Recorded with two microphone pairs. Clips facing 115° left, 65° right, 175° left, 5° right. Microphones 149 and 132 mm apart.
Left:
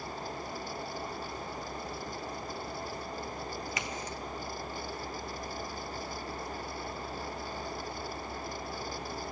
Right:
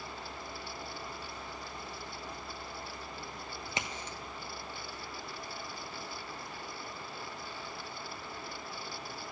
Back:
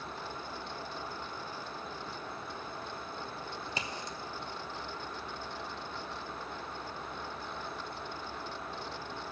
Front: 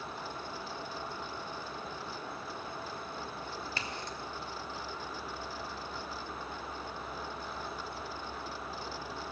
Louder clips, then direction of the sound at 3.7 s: Left 3 dB, even; 115° right.